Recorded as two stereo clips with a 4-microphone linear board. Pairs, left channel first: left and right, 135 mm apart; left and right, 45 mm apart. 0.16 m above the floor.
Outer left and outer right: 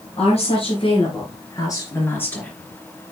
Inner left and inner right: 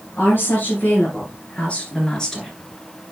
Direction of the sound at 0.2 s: 55° left (ahead or behind).